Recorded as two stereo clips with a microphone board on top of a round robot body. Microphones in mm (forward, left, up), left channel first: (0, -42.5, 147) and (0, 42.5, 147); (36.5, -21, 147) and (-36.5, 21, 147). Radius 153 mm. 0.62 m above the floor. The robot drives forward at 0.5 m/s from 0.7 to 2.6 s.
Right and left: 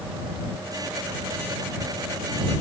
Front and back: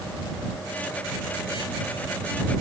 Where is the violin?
I don't hear a violin.